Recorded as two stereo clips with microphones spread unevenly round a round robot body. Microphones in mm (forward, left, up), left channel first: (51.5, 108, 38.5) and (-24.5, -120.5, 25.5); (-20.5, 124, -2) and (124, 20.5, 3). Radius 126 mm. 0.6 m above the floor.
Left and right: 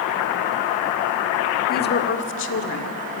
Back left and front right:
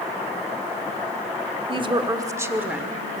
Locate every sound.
1.7 s a woman speaking: 20° left, 1.6 m; by 3.2 s 55° left, 1.9 m